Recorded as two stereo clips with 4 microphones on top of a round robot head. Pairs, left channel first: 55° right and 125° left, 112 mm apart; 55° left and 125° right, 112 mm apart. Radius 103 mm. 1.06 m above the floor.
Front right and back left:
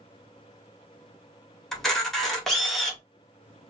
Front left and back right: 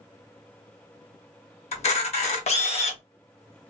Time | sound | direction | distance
1.7 | a camera shutter | 30° left | 1.2 m